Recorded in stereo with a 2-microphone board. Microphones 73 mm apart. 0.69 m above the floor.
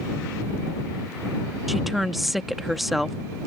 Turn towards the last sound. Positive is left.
turn(degrees=0)  # may be behind; listen again after turning